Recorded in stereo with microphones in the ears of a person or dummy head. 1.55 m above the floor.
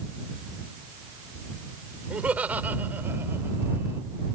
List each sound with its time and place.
2.1 s laughter: 5° right (ahead or behind); by 4.0 s 15° right (ahead or behind)